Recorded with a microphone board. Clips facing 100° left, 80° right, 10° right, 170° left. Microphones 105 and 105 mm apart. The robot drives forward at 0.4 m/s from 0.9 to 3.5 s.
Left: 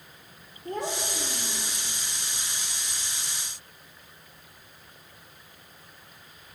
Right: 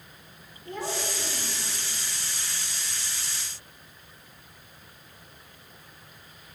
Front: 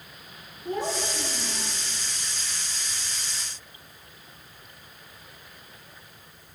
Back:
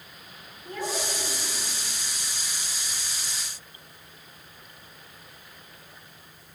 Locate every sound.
0.7 s a child speaking: 50° left, 6.5 m